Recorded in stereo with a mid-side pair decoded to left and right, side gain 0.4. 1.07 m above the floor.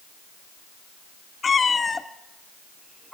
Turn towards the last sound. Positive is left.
turn(degrees=-5)